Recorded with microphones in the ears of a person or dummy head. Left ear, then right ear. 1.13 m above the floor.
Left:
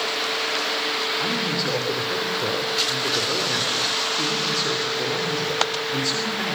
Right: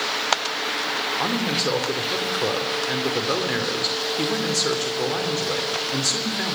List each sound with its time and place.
1.2 s a man speaking: 20° right (ahead or behind), 3 m